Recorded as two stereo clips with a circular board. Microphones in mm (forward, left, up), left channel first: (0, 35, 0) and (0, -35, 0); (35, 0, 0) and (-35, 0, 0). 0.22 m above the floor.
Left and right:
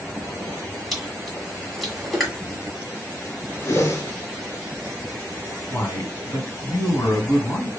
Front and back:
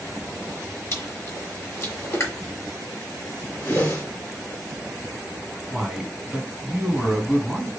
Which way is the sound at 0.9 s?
5° left.